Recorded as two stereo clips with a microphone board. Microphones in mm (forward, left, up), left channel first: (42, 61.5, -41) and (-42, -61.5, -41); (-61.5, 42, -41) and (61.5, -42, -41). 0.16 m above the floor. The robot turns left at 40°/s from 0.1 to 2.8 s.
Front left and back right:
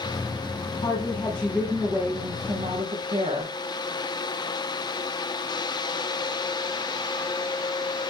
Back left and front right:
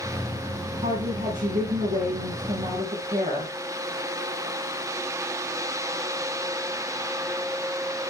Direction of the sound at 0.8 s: 5° left.